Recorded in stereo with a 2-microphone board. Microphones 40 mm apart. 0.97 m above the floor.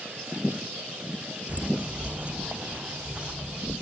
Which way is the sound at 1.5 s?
35° right (ahead or behind).